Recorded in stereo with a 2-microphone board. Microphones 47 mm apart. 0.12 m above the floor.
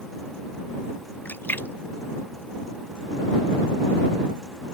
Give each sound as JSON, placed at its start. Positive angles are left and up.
{"t": 1.2, "sound": "a splash", "side_deg": 40}